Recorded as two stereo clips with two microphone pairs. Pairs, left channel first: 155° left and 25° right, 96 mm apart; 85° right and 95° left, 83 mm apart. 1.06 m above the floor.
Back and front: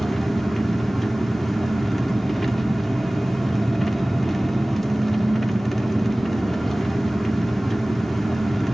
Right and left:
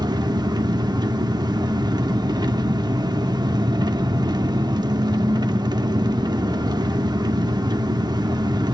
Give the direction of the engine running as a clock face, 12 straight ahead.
10 o'clock.